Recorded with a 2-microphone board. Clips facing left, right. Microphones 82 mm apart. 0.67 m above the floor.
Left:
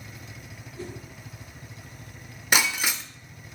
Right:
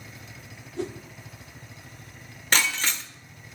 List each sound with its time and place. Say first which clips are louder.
0.8 s a whoosh: right 6 dB; 75° right (ahead or behind), 0.9 m
2.5 s breaking glass: left 1 dB; 10° left (ahead or behind), 0.7 m